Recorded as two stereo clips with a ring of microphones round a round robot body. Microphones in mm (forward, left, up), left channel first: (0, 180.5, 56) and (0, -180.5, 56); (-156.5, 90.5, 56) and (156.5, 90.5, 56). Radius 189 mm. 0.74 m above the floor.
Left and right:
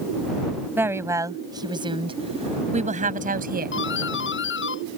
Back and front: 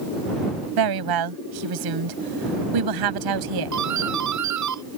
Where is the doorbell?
30° left.